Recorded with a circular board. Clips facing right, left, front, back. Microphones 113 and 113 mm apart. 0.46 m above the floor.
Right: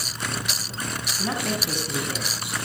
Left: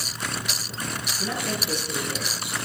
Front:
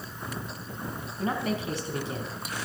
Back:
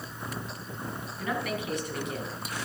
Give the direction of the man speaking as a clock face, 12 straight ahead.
2 o'clock.